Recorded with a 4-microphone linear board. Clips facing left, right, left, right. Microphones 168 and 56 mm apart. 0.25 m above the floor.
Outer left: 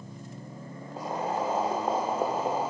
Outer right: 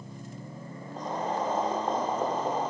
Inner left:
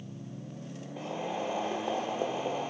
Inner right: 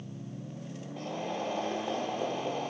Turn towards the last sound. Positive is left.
turn(degrees=10)  # may be behind; listen again after turning